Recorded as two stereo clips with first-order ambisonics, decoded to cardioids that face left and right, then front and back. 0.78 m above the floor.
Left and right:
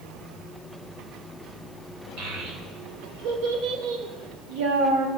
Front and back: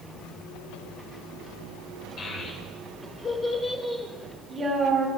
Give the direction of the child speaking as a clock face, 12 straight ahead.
2 o'clock.